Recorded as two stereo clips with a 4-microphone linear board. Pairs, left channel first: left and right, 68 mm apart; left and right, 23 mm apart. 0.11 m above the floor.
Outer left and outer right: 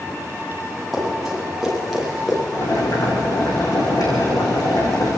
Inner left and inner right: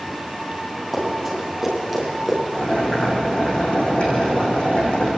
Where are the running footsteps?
Centre (ahead or behind), 8.5 m.